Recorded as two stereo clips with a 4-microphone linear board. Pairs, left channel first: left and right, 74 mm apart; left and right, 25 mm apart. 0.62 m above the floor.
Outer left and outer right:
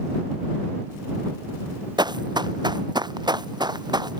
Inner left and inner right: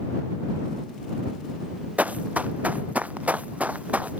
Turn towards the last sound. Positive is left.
turn(degrees=-75)  # may be behind; listen again after turning